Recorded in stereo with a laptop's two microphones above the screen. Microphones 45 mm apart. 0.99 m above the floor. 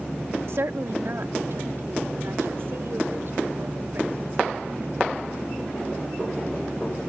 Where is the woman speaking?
65° right (ahead or behind); by 5.4 s 55° right (ahead or behind).